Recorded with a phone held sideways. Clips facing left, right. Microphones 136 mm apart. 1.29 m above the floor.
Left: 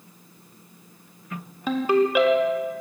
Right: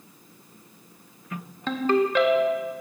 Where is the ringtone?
10° left (ahead or behind), 0.6 m.